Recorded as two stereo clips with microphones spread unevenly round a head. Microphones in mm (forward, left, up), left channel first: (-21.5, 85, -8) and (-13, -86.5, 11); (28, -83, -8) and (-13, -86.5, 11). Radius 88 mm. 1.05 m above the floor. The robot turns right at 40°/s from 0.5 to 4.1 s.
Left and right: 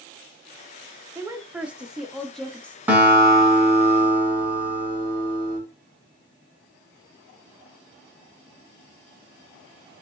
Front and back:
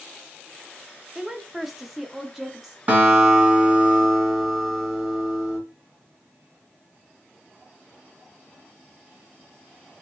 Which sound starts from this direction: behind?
A guitar, at 2.9 s.